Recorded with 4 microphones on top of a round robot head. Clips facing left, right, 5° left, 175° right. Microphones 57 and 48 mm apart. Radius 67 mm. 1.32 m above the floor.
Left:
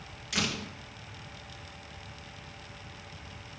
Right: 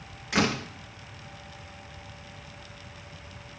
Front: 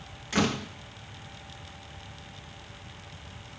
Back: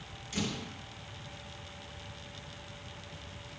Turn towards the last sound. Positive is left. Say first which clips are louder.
# right 7 dB, front 9 dB
turn(degrees=-40)